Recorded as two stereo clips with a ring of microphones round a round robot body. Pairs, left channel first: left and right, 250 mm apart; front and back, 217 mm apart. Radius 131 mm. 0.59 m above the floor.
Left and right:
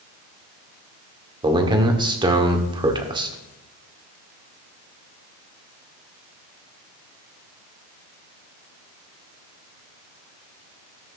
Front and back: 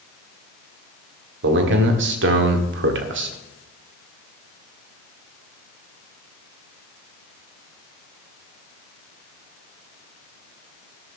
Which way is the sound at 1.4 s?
160° right.